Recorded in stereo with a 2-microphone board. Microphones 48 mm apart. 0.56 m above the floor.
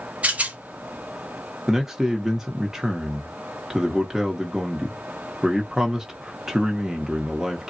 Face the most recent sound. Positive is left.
turn(degrees=-10)  # may be behind; listen again after turning